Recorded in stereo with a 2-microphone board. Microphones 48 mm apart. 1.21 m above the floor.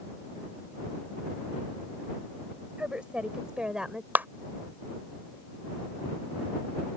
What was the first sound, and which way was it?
A woman speaking, 25° right (ahead or behind).